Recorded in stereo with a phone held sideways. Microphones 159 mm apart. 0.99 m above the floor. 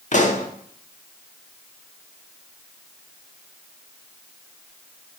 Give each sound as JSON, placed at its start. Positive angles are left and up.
{"t": 0.1, "sound": "a pop", "side_deg": 50, "distance_m": 1.1}